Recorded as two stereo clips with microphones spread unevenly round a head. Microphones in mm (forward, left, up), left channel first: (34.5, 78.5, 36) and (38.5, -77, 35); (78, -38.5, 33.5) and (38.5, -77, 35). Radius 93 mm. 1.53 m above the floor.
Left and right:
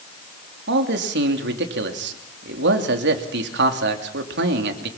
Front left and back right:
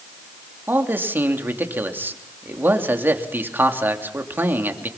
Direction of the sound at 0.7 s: 85° right.